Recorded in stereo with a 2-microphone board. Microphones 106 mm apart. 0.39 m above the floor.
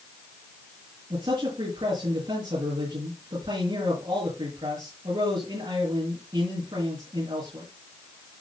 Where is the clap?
No clap in this recording.